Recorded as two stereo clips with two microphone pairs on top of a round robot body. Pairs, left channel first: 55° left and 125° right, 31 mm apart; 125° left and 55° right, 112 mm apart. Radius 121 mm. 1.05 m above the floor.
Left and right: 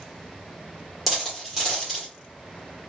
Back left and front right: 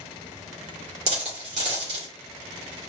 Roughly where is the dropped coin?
Ahead right.